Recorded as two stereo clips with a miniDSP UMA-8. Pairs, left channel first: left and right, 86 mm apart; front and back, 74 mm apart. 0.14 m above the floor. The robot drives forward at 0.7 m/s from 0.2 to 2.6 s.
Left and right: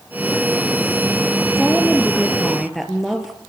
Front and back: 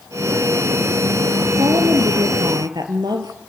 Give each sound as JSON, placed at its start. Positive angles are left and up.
{"t": 1.6, "sound": "a woman speaking", "azimuth_deg": 180, "distance_m": 2.5}